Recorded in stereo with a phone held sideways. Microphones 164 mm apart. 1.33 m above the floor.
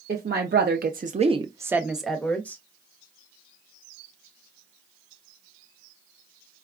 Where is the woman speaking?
75° right (ahead or behind), 0.7 m; by 2.6 s 10° left (ahead or behind), 1.0 m.